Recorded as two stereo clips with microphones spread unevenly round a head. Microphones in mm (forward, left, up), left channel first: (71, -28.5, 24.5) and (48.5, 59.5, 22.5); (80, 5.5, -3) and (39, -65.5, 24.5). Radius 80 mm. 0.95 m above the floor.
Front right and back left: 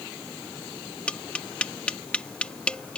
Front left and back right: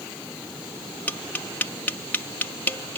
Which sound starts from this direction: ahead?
Tapping, at 1.1 s.